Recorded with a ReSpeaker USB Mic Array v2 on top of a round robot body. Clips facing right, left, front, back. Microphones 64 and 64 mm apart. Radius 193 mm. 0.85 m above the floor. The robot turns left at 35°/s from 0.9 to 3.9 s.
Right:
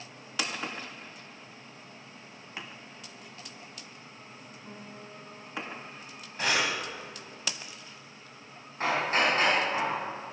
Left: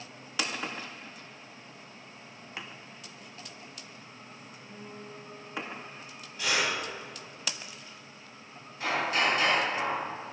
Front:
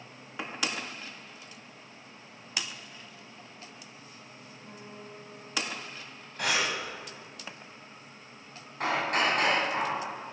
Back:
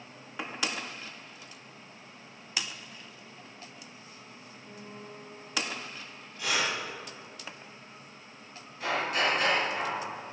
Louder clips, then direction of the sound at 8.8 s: Right 2 dB, front 1 dB; 35° right.